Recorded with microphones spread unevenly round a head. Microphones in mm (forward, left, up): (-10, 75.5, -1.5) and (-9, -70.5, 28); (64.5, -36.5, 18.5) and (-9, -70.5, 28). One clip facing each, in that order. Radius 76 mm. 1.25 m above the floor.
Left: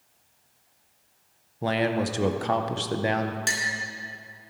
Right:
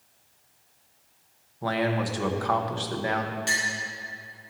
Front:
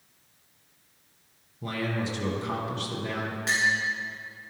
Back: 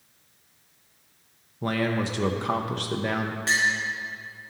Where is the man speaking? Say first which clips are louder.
Left 2 dB, back 5 dB; 150° left, 0.7 m.